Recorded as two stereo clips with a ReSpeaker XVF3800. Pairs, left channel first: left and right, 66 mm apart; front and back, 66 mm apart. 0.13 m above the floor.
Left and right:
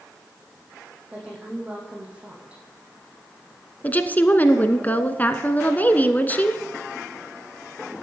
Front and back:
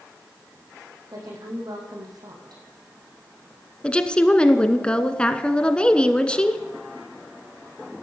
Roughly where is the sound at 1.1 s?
Behind.